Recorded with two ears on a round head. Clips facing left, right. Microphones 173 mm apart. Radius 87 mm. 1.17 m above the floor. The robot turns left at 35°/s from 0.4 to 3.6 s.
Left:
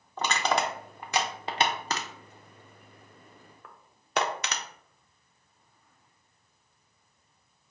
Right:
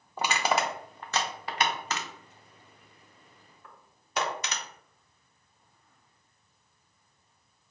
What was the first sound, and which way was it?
Crushing, 10° right (ahead or behind).